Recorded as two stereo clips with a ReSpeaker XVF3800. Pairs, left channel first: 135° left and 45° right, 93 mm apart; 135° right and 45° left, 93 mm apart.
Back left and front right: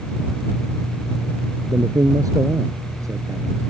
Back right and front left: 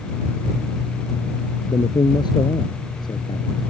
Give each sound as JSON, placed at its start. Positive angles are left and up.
{"t": 1.7, "sound": "a man speaking", "azimuth_deg": -95}